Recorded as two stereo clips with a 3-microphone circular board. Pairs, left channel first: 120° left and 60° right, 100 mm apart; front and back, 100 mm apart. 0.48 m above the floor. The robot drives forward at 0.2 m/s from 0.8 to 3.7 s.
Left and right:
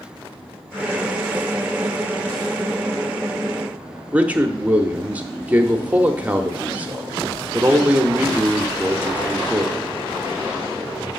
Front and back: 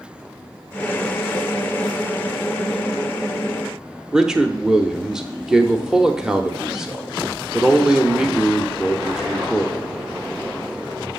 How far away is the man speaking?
About 0.8 m.